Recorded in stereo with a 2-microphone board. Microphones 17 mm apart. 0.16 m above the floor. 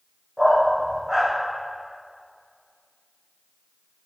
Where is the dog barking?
30° right (ahead or behind), 4 m.